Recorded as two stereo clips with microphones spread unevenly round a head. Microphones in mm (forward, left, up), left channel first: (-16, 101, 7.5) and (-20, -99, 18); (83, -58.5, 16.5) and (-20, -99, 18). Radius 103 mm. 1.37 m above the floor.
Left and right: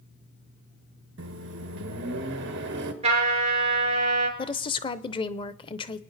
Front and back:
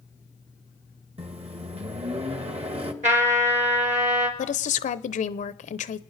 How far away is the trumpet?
About 4.5 m.